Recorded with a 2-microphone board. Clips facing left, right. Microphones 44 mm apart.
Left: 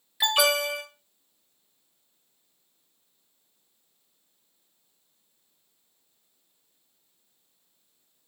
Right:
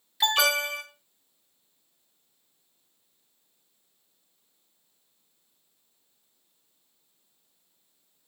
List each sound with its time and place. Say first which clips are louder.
0.2 s an alarm: left 1 dB; 15° left (ahead or behind), 2.5 m